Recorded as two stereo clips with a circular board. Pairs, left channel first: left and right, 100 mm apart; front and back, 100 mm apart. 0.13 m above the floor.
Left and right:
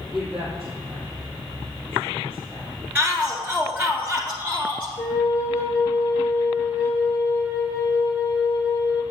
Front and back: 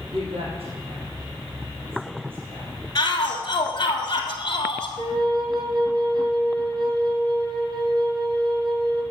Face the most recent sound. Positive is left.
turn(degrees=140)